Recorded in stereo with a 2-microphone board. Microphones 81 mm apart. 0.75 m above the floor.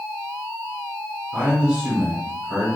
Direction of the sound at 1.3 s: 10° right (ahead or behind).